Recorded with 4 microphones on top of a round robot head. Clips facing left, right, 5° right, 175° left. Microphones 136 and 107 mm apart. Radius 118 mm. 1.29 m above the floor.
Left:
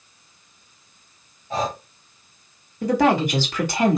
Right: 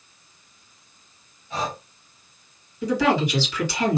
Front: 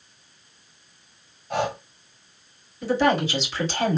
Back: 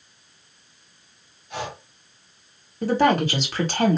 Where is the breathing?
30° left, 1.3 m.